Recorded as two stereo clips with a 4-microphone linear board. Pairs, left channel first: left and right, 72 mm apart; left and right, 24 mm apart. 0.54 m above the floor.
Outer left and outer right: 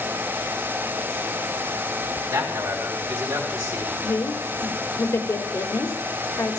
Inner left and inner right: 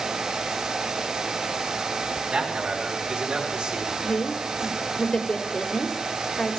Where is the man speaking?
60° right (ahead or behind), 3.5 m; by 3.9 s 65° right (ahead or behind), 2.5 m.